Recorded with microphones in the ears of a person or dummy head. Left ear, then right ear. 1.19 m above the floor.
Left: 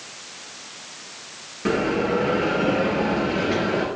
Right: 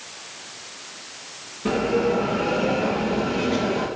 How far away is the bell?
About 4.5 m.